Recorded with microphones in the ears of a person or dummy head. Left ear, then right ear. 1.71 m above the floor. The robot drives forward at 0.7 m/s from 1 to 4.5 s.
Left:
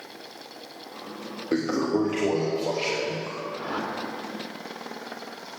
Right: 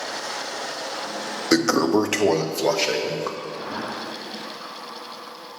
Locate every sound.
1.5 s a toilet flushing: 65° right (ahead or behind), 0.9 m; by 3.4 s 35° right (ahead or behind), 1.4 m
3.5 s a whoosh: 50° left (ahead or behind), 2.5 m; by 3.9 s 55° left (ahead or behind), 2.5 m